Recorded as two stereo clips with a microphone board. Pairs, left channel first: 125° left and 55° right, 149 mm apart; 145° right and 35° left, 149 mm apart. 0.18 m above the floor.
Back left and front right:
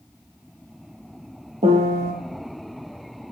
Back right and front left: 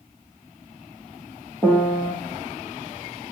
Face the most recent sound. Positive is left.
turn(degrees=-70)